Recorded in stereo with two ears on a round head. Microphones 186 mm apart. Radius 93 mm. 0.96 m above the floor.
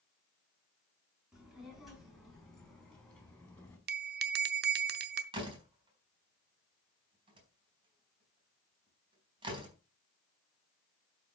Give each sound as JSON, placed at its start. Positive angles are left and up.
{"t": 1.3, "sound": "a child speaking", "side_deg": -5, "distance_m": 7.0}
{"t": 3.9, "sound": "a bell", "side_deg": -50, "distance_m": 0.8}
{"t": 5.3, "sound": "a door slam", "side_deg": -25, "distance_m": 4.0}